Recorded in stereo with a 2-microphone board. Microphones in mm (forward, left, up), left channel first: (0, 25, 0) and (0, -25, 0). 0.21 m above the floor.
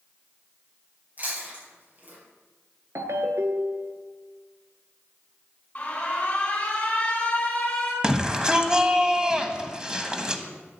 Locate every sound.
1.2 s chewing: 40° right (ahead or behind), 6 m
3.0 s a ringtone: 70° right (ahead or behind), 1.3 m
5.8 s an alarm: 30° left (ahead or behind), 3 m
8.0 s a shout: 15° right (ahead or behind), 1.1 m